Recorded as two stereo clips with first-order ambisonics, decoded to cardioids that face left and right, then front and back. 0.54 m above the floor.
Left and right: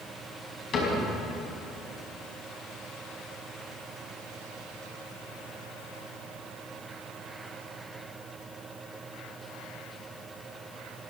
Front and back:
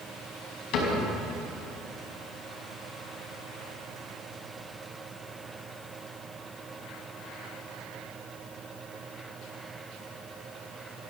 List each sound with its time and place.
0.7 s a cupboard door: 35° left, 4.5 m